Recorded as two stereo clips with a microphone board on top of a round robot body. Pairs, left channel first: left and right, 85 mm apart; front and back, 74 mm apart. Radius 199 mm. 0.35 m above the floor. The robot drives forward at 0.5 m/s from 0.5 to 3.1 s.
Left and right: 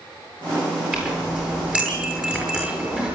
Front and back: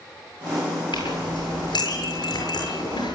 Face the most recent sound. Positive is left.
turn(degrees=-15)